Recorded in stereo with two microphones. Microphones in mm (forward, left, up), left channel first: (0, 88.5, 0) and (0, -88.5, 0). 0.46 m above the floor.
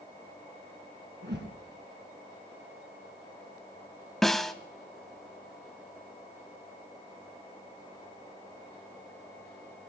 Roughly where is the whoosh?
Right.